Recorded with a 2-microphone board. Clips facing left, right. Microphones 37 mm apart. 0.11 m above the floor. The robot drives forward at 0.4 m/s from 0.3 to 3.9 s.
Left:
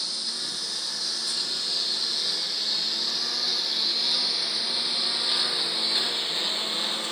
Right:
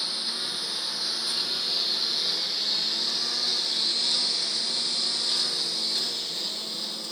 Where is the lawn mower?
20° right (ahead or behind); by 7.1 s 55° left (ahead or behind).